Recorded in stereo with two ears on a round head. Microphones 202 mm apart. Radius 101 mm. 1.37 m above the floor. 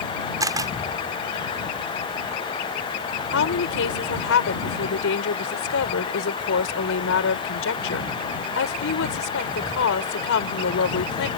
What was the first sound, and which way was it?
A camera shutter, 15° right (ahead or behind).